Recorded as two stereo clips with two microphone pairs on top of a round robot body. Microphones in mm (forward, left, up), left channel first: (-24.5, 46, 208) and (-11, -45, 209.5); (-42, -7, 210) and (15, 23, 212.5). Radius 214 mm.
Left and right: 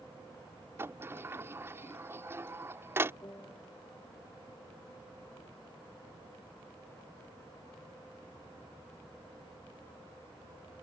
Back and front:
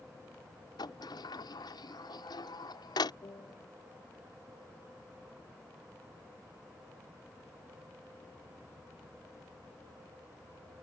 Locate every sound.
0.8 s a sliding door: 145° right
3.2 s a piano: 165° left